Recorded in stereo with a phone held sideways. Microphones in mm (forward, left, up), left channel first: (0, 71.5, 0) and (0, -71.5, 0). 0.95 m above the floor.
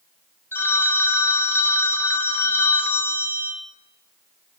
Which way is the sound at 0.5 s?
15° left (ahead or behind).